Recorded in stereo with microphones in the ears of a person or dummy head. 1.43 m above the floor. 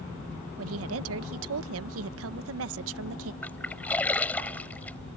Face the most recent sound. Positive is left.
turn(degrees=10)  # may be behind; listen again after turning